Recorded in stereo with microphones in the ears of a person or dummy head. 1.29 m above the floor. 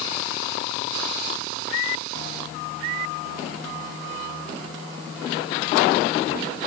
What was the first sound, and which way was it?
Only background noise.